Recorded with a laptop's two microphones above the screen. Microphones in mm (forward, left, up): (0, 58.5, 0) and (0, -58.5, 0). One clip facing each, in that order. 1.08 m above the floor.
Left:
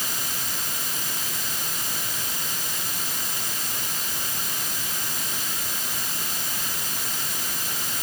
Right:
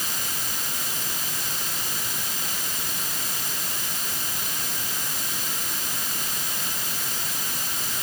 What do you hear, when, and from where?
Only background noise.